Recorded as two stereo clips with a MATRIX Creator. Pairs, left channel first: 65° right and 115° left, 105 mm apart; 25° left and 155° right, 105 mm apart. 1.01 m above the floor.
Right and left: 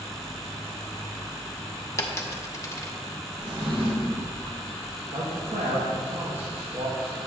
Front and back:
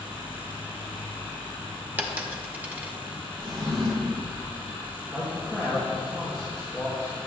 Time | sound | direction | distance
2.0 | a dropped coin | 100° right | 0.7 m
3.4 | a drawer | 150° left | 1.4 m
5.1 | a man speaking | 110° left | 1.2 m